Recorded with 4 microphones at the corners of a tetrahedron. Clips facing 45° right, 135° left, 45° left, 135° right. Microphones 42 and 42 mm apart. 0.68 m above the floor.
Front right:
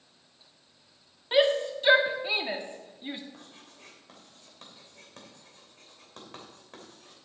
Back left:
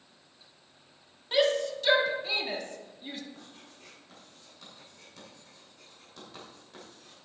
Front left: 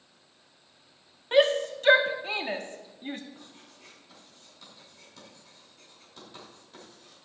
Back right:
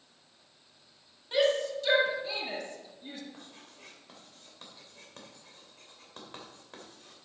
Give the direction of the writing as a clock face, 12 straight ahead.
3 o'clock.